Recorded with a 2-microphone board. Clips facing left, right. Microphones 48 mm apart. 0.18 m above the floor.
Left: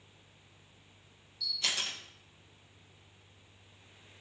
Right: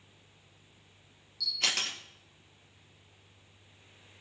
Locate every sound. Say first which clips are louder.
1.4 s a camera shutter: right 3 dB; 70° right (ahead or behind), 3 m